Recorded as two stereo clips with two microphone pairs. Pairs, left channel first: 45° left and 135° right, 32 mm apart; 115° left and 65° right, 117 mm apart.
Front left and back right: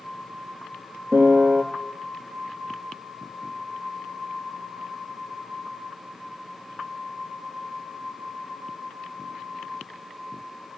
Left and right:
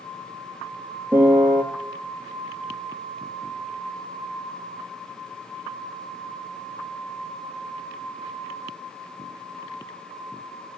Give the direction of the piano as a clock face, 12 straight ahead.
5 o'clock.